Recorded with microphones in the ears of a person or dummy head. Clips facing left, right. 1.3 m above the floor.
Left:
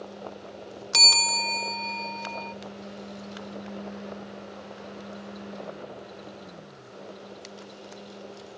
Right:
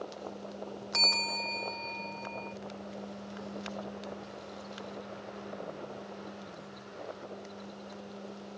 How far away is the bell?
About 0.6 m.